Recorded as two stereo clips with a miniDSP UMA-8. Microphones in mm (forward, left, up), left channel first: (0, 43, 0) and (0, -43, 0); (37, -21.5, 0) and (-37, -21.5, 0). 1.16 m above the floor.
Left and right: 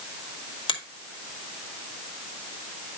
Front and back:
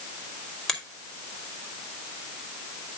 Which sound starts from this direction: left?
A finger snap, at 0.7 s.